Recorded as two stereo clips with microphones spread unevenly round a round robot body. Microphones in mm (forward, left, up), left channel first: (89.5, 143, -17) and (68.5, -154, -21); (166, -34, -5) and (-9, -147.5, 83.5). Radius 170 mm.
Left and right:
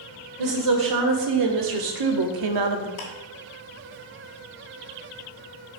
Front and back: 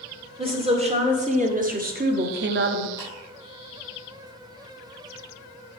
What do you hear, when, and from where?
0.4 s a woman speaking: 80° right, 2 m; by 2.9 s 115° right, 1.0 m
3.0 s ticking: 125° left, 3 m